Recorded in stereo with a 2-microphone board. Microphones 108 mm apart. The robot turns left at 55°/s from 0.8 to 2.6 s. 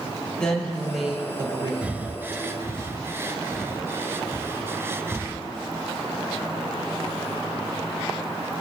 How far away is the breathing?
About 0.6 m.